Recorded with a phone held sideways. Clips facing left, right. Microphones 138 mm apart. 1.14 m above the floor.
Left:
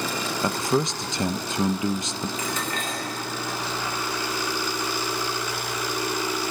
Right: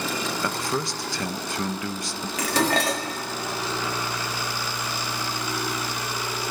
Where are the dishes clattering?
75° right (ahead or behind), 1.5 m.